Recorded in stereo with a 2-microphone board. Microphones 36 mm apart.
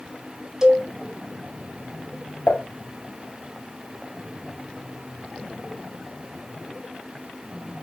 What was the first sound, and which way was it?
A cowbell, 10° right (ahead or behind).